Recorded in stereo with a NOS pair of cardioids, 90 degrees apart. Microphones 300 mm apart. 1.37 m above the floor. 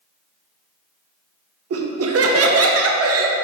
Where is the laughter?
55° right, 1.2 m.